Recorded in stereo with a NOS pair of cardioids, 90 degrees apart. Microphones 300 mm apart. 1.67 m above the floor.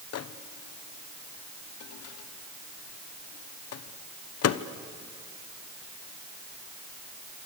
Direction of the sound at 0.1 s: 55° left.